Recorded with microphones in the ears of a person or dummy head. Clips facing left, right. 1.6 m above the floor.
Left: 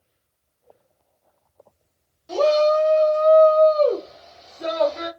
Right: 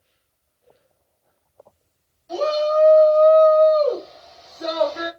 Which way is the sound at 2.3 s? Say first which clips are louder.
Left 3 dB; 75° left (ahead or behind).